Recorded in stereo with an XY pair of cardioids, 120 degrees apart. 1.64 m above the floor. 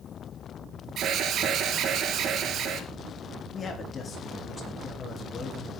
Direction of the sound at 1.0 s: 55° right.